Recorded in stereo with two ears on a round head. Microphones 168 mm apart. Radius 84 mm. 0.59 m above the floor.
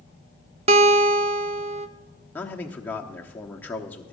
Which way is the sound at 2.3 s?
10° left (ahead or behind).